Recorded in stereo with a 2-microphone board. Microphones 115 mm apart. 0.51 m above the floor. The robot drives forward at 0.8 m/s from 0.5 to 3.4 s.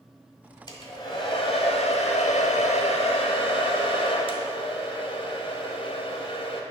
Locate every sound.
0.7 s a hair dryer: 35° left (ahead or behind), 1.7 m; by 6.6 s 50° left (ahead or behind), 1.2 m